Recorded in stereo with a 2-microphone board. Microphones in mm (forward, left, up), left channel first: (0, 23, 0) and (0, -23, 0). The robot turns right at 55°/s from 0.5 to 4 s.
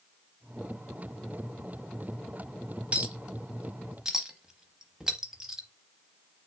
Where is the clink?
25° right (ahead or behind), 0.7 m; by 5.7 s 10° right (ahead or behind), 0.7 m.